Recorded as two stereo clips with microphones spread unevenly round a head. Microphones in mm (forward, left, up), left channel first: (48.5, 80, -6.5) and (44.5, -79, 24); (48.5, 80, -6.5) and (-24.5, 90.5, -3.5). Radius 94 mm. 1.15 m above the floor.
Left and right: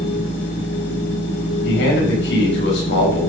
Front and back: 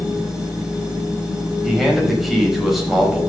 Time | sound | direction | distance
0.0 | a machine running | 95° left | 4.5 m
1.6 | a man speaking | 85° left | 6 m